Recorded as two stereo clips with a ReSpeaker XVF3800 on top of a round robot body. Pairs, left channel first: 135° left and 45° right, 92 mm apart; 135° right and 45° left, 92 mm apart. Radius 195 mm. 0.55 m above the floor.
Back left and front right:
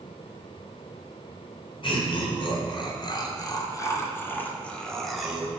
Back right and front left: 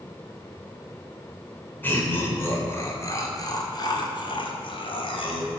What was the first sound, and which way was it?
Laughter, 155° left.